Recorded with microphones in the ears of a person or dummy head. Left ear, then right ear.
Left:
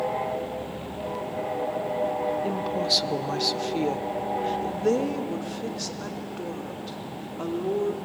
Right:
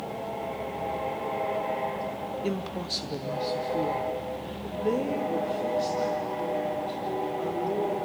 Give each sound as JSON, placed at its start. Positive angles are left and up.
{"t": 2.4, "sound": "a woman speaking", "side_deg": -10, "distance_m": 0.7}